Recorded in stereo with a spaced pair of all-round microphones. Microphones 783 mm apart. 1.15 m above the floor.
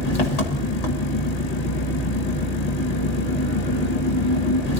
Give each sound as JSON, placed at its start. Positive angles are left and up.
{"t": 0.0, "sound": "an engine running", "side_deg": 50, "distance_m": 1.6}